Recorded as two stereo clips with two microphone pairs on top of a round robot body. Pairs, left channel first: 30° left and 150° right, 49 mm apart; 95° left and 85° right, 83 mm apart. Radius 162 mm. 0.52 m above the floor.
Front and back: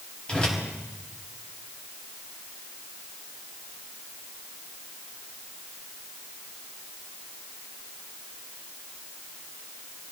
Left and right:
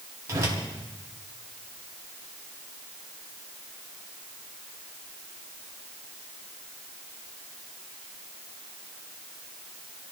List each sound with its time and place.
0.3 s a whoosh: 40° right, 4.5 m